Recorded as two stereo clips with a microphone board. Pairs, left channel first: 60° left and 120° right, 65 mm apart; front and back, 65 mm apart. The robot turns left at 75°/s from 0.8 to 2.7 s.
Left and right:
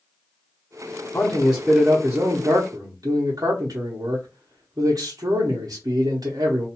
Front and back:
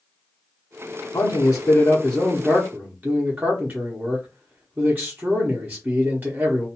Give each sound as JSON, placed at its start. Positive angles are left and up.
{"t": 1.1, "sound": "a man speaking", "azimuth_deg": -5, "distance_m": 0.9}